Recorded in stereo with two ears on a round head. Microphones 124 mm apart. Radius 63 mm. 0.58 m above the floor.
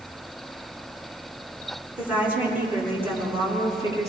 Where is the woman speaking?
10° right (ahead or behind), 6.5 m; by 4.1 s 20° right (ahead or behind), 6.5 m.